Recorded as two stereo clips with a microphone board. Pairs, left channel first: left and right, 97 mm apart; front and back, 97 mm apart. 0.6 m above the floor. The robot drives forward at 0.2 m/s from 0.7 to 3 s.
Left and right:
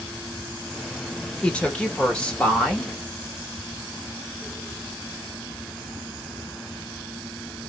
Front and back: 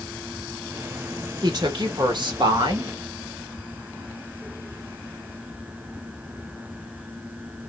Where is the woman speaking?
165° left, 1.1 m; by 3.0 s 170° left, 1.3 m.